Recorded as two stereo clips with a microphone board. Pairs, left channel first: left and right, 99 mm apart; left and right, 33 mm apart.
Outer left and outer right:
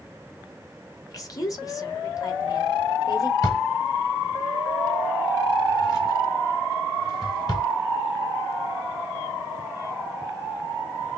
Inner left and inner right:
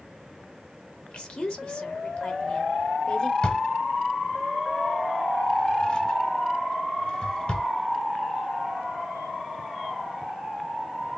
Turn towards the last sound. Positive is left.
turn(degrees=35)  # may be behind; listen again after turning